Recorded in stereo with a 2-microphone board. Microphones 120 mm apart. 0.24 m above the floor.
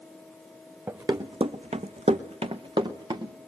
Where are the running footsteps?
25° right (ahead or behind), 1.1 m; by 3.3 s 40° right (ahead or behind), 1.8 m.